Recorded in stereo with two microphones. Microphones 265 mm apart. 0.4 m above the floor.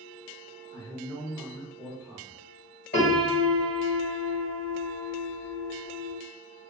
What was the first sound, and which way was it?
A man speaking, 25° left (ahead or behind).